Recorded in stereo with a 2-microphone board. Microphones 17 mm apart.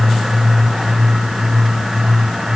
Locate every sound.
Only background noise.